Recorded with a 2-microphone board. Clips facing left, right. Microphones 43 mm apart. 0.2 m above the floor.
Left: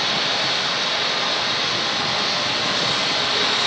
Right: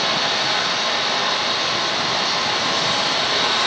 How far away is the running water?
About 5 m.